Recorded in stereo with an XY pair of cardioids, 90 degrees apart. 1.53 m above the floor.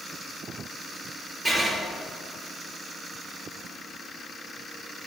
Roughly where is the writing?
Ahead right.